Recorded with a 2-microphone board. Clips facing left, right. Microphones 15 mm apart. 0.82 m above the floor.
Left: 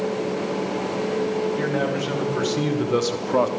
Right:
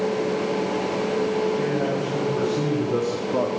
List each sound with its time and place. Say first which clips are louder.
1.6 s a man speaking: even; 85° left, 4 m; by 3.5 s 70° left (ahead or behind), 1.2 m